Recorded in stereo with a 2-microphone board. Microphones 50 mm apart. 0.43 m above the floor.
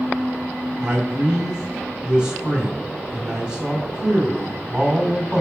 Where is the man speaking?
15° right (ahead or behind), 2.5 m.